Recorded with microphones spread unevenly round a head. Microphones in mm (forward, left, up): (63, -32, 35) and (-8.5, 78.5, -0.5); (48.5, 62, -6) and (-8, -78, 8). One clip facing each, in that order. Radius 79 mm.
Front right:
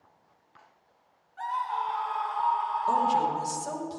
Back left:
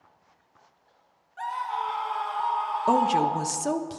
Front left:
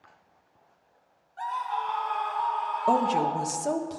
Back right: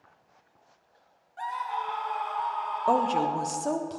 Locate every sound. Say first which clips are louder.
1.4 s a scream: even, front left 2 dB; 175° left, 2 m; by 3.7 s 150° left, 4 m
2.9 s a woman speaking: back left 3 dB, even; 155° left, 1.0 m